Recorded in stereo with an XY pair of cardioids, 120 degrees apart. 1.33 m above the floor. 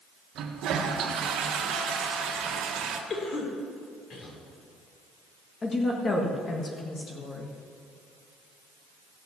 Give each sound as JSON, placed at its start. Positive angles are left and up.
{"t": 0.3, "sound": "a toilet flushing", "azimuth_deg": -70, "distance_m": 1.5}
{"t": 3.1, "sound": "a cough", "azimuth_deg": 40, "distance_m": 3.5}
{"t": 5.6, "sound": "a woman speaking", "azimuth_deg": 30, "distance_m": 1.6}